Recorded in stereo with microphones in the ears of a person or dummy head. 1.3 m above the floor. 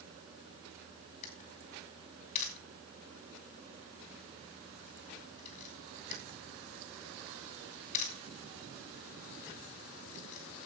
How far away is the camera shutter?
About 3.5 m.